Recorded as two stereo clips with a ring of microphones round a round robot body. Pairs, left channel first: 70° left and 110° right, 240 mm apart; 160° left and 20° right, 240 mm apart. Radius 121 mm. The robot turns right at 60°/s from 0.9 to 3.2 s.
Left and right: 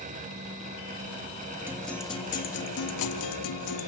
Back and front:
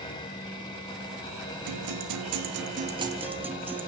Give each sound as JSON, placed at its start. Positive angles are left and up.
{"t": 1.7, "sound": "a guitar", "azimuth_deg": -30, "distance_m": 3.0}